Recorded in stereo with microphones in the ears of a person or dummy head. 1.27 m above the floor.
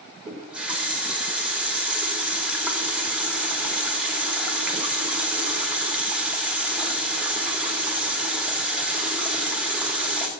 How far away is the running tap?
About 1.8 m.